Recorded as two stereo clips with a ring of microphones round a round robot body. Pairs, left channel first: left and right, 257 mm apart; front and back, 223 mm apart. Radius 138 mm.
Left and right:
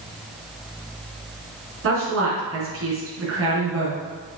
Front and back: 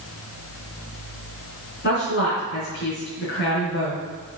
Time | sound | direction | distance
1.8 | a woman speaking | 50° right | 4 m